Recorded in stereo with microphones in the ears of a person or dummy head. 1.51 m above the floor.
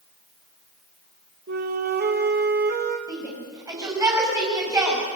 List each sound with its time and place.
1.5 s a flute: 45° right (ahead or behind), 2 m
3.1 s a shout: 10° right (ahead or behind), 8 m